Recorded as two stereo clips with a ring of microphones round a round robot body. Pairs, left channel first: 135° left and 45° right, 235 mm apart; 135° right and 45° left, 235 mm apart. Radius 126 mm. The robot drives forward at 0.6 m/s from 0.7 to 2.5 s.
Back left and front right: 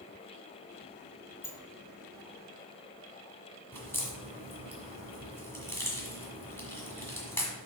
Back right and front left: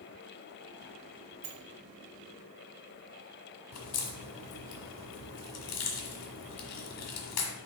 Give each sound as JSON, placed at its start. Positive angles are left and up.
{"t": 1.4, "sound": "a sliding door", "azimuth_deg": 55, "distance_m": 1.0}
{"t": 3.7, "sound": "a crack", "azimuth_deg": -145, "distance_m": 1.5}